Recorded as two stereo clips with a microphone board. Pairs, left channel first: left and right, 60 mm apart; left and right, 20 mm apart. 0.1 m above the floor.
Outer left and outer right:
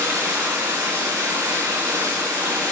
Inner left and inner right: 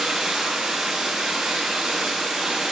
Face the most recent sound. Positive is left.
turn(degrees=-25)  # may be behind; listen again after turning